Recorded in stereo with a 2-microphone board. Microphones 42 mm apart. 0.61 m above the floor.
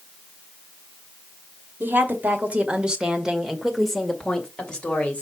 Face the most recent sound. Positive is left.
turn(degrees=30)  # may be behind; listen again after turning